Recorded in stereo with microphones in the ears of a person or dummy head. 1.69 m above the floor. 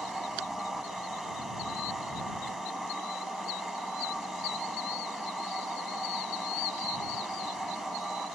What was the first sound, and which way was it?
A machine running, 5° left (ahead or behind).